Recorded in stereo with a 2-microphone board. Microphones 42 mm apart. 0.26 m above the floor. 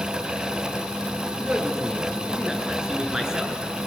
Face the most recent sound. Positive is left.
turn(degrees=-15)  # may be behind; listen again after turning